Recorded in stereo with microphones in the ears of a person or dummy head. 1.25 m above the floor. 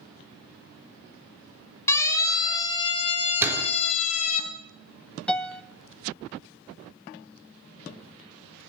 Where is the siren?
20° left (ahead or behind), 2.5 m; by 4.4 s 50° left (ahead or behind), 3 m.